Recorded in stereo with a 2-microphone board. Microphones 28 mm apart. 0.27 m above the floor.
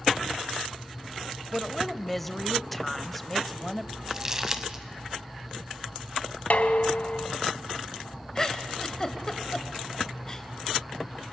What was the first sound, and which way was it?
A woman speaking, 5° left (ahead or behind).